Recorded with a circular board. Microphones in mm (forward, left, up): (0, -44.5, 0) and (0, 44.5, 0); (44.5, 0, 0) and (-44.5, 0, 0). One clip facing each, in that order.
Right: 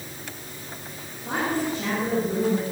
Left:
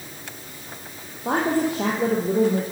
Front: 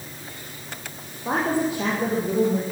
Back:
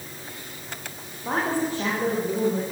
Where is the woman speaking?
75° left, 5.5 m.